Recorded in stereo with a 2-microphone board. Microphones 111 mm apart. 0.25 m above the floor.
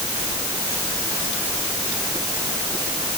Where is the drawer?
No drawer in this recording.